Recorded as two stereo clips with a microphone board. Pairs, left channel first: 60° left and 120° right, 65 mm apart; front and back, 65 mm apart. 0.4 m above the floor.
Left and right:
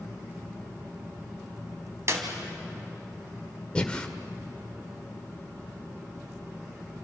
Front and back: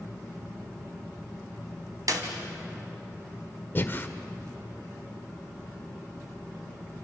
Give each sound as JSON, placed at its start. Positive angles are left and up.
{"t": 2.1, "sound": "a clap", "azimuth_deg": -160, "distance_m": 3.0}
{"t": 3.8, "sound": "breathing", "azimuth_deg": 0, "distance_m": 1.5}